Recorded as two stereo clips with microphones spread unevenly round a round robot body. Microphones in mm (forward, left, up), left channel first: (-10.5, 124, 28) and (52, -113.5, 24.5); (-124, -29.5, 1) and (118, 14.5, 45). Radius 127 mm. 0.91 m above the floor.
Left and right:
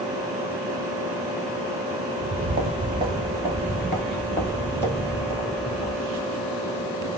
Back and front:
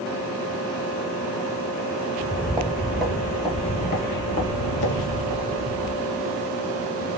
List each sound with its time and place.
2.2 s footsteps: 25° right, 1.1 m; by 6.3 s 175° left, 1.8 m